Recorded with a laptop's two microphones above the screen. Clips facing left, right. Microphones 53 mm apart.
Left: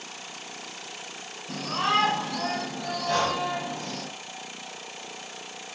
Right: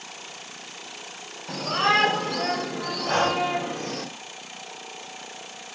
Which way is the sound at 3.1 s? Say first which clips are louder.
Right 3 dB; 35° right (ahead or behind).